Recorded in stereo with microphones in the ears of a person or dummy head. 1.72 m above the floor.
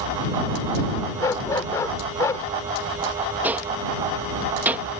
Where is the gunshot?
10° right (ahead or behind).